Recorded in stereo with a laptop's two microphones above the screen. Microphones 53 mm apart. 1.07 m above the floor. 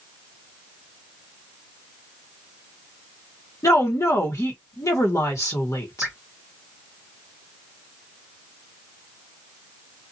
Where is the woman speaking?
80° left, 1.0 m.